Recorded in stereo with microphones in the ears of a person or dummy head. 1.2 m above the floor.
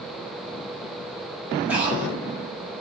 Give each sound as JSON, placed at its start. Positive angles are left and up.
{"t": 1.7, "sound": "breathing", "side_deg": -5, "distance_m": 0.6}